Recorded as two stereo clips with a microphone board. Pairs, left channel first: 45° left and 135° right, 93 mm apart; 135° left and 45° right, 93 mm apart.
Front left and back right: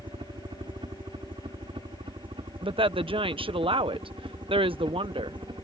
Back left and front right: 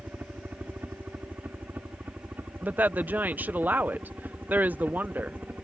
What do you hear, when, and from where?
0.0 s a helicopter: 110° right
2.6 s a woman speaking: 115° right